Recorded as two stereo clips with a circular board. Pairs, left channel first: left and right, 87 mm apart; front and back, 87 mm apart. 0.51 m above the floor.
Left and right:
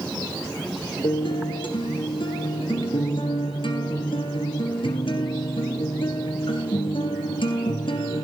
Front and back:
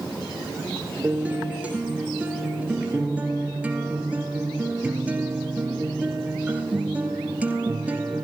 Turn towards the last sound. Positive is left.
turn(degrees=105)